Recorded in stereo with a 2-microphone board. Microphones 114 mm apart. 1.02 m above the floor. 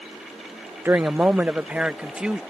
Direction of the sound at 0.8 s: 20° right (ahead or behind).